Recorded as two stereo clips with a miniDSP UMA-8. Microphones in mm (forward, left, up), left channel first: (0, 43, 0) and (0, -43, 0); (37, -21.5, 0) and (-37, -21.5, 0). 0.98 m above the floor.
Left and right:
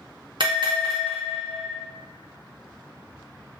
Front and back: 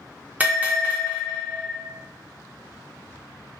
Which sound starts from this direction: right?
A bell, at 0.4 s.